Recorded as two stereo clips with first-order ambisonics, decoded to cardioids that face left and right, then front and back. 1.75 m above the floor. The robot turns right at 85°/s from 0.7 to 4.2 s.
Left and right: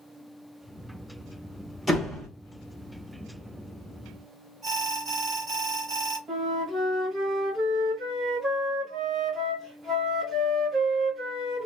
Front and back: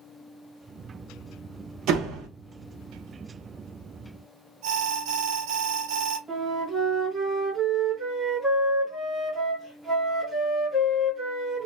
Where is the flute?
100° right, 1.0 m.